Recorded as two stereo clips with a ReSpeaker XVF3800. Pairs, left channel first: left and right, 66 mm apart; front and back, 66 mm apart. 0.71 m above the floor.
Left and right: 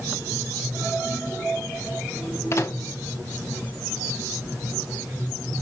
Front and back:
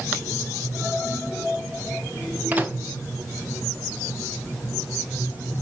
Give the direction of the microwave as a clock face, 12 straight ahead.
8 o'clock.